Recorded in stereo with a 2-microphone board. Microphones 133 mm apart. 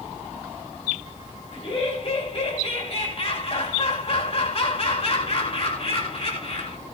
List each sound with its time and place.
1.5 s laughter: 50° left (ahead or behind), 2 m